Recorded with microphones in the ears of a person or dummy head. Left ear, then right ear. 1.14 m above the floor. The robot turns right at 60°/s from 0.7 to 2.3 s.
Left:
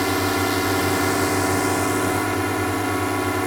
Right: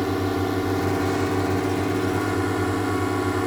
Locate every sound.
0.0 s a drone: 55° left; by 3.5 s 150° left